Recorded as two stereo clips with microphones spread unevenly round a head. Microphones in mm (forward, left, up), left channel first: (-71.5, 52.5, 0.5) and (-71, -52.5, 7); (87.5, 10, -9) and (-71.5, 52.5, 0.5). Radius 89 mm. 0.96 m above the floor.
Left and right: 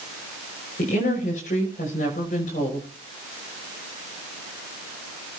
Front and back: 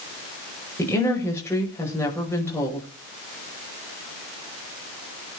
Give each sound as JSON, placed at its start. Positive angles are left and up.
{"t": 0.8, "sound": "a woman speaking", "azimuth_deg": 60, "distance_m": 5.5}